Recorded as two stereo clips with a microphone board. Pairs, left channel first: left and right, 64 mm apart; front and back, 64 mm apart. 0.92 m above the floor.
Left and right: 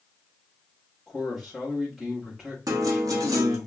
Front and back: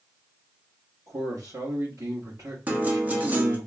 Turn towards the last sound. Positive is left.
turn(degrees=-115)